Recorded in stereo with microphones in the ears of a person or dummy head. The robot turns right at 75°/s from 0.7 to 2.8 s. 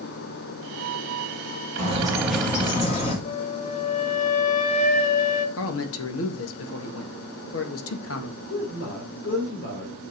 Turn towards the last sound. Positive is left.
turn(degrees=55)  # may be behind; listen again after turning